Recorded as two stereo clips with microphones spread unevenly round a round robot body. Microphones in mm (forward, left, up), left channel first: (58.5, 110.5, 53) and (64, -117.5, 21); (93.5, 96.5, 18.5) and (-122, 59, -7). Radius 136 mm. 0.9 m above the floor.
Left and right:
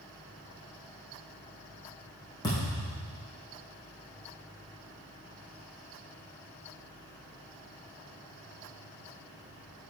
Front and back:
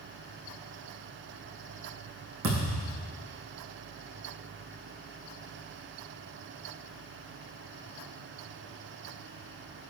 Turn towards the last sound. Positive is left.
turn(degrees=165)